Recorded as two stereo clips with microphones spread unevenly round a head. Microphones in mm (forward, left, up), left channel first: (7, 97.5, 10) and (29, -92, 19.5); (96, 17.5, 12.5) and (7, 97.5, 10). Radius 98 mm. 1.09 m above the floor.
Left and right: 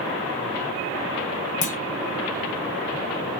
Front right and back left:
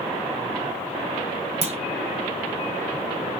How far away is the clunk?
About 1.1 m.